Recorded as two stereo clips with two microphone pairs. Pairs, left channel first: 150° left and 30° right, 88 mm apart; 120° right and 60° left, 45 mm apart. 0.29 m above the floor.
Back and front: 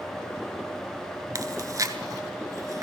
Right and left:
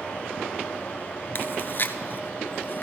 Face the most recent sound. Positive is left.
turn(degrees=-80)